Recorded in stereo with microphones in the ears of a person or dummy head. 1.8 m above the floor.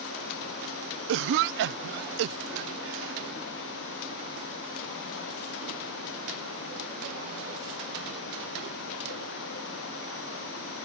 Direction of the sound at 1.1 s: 60° right (ahead or behind).